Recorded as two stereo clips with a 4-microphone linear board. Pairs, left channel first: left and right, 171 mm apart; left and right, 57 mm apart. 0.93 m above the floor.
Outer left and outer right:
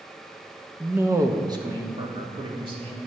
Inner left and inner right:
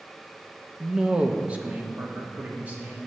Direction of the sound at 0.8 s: 5° right (ahead or behind).